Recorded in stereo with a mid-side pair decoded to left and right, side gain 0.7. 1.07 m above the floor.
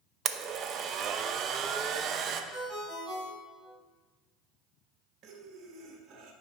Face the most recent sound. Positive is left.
turn(degrees=-45)